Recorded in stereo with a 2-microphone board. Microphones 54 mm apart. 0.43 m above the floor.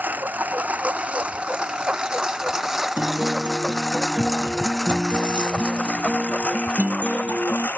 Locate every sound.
0.0 s a lawn mower: 35° right (ahead or behind); by 7.8 s 35° left (ahead or behind)
3.0 s a guitar: 25° right (ahead or behind)